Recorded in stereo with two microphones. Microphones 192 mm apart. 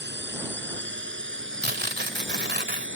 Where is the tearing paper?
60° right (ahead or behind).